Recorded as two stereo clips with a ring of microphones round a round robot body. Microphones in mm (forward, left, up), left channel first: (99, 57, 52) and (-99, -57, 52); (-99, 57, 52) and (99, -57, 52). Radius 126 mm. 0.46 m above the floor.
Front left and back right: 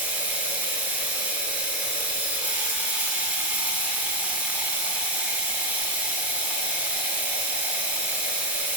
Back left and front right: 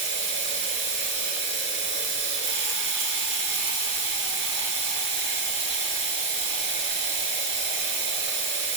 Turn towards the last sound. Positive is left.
turn(degrees=-65)